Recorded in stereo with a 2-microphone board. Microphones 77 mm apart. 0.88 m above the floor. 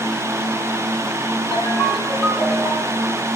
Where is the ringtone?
20° left (ahead or behind), 8.5 m.